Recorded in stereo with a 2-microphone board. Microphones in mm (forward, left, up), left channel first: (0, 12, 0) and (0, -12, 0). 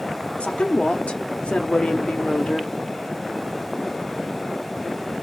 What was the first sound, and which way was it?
A woman speaking, 60° left (ahead or behind).